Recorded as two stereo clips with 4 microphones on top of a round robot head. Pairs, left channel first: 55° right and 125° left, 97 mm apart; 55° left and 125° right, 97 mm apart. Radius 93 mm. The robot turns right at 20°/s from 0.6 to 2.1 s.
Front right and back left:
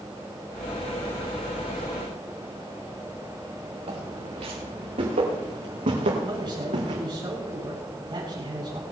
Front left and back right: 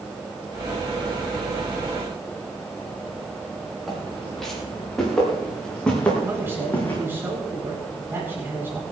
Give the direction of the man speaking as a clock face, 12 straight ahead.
6 o'clock.